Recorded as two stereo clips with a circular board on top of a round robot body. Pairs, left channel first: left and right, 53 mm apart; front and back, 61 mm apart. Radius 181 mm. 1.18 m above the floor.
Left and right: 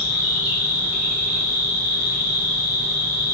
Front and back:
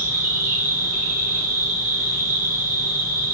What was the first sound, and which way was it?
An insect, 30° right.